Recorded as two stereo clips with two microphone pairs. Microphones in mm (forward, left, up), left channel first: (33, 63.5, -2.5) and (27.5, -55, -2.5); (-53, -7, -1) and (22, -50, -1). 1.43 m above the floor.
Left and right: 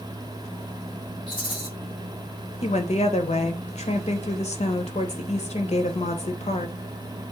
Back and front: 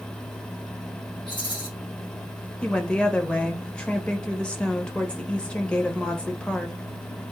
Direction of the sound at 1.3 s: 130° left.